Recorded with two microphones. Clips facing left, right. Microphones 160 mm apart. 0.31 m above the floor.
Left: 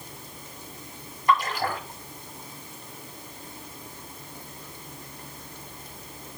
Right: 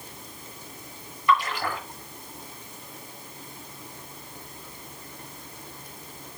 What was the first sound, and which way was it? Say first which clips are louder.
A splash: even; 40° left (ahead or behind).